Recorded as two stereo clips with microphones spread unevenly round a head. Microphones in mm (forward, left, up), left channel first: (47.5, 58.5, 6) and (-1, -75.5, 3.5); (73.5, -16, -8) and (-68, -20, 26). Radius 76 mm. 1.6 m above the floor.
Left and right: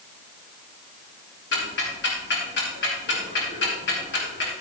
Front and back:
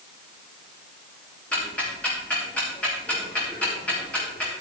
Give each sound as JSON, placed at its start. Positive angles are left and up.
{"t": 1.5, "sound": "ticking", "azimuth_deg": 85, "distance_m": 3.0}